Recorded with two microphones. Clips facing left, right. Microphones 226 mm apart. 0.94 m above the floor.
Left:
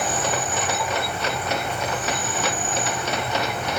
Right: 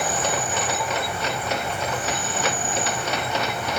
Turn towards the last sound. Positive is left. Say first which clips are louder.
# even
turn(degrees=-10)  # may be behind; listen again after turning